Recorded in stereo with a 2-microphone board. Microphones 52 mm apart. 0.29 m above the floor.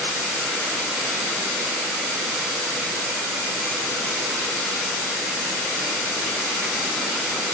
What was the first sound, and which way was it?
Only background noise.